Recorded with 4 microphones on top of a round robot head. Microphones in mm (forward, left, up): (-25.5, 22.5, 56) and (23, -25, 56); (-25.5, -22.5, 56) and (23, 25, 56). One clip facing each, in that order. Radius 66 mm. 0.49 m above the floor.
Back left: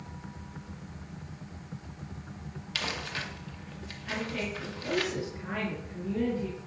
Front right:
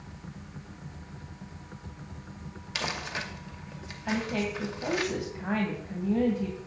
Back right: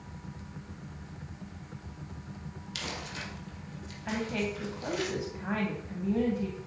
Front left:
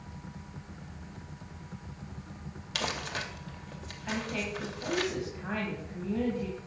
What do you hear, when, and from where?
2.8 s crumpling: 25° left, 2 m
4.0 s a woman speaking: 60° right, 3 m